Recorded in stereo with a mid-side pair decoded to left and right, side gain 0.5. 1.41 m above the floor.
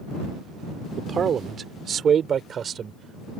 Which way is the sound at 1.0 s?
45° right.